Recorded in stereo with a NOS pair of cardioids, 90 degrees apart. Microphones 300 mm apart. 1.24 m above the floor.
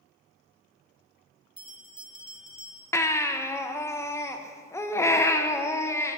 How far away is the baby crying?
About 0.6 m.